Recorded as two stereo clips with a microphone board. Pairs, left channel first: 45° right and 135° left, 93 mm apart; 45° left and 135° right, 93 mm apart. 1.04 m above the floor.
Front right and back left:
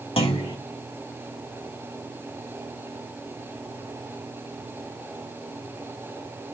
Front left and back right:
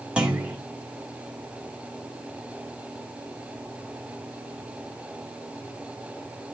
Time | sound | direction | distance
0.2 | a clunk | 55° right | 2 m